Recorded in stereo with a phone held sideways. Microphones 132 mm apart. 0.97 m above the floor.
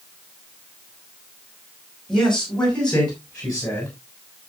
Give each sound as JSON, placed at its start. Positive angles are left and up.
{"t": 2.1, "sound": "a man speaking", "side_deg": 5, "distance_m": 5.5}